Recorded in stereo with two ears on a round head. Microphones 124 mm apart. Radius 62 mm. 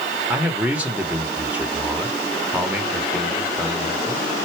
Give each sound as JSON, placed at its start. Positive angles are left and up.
{"t": 0.3, "sound": "a man speaking", "side_deg": -10, "distance_m": 1.4}